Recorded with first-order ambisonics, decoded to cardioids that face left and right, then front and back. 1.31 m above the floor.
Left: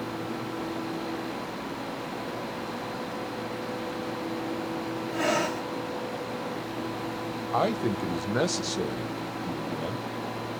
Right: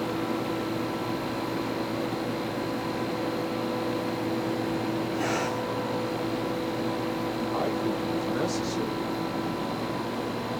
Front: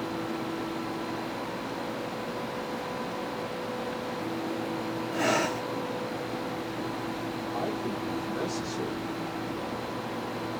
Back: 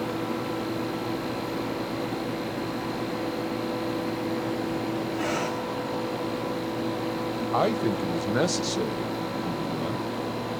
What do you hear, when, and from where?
5.1 s breathing: 20° left, 1.1 m
7.5 s a man speaking: 150° left, 0.5 m